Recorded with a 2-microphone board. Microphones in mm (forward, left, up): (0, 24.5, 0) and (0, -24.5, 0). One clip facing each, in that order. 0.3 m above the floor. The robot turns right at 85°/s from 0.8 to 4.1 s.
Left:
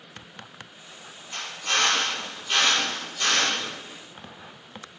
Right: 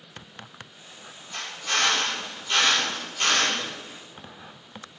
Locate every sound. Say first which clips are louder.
1.3 s a drill: left 1 dB; 65° left, 3.5 m; by 3.6 s 95° right, 3.5 m